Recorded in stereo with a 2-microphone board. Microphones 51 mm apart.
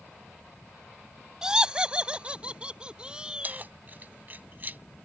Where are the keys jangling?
40° right (ahead or behind).